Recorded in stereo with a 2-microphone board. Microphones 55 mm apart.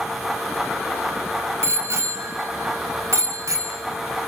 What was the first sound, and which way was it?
A bicycle bell, 55° right (ahead or behind).